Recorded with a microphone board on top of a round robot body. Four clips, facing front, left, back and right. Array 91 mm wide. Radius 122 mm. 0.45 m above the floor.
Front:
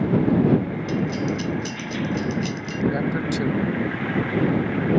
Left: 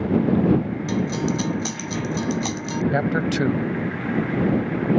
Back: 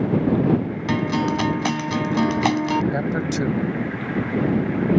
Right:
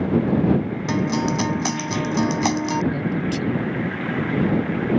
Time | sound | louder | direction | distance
0.9 | a guitar | right 3 dB, back 5 dB | 150° right | ?
2.9 | a man speaking | left 2 dB, back 1 dB | 105° left | ?